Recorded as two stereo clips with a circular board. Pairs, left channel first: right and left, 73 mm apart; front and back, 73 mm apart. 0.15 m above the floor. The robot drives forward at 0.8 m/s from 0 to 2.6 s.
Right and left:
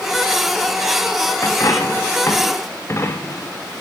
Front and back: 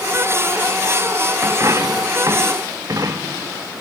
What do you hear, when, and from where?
1.4 s a dropped coin: 130° right, 3.5 m; by 3.6 s 140° right, 4 m